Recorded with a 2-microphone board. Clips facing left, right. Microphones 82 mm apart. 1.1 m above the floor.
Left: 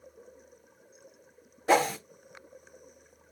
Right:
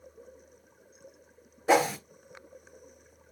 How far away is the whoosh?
About 0.5 m.